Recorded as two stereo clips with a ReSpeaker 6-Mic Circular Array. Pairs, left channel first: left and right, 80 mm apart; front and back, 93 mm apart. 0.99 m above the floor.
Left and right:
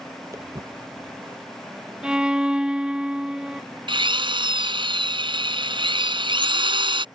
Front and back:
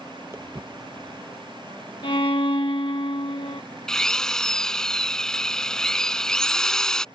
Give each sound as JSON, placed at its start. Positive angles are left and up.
{"t": 0.3, "sound": "footsteps", "azimuth_deg": -125}
{"t": 2.0, "sound": "a violin", "azimuth_deg": -10}
{"t": 3.9, "sound": "a drill", "azimuth_deg": -85}